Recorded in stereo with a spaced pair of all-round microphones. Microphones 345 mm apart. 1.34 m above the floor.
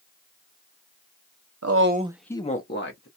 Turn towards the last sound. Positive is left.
turn(degrees=40)  # may be behind; listen again after turning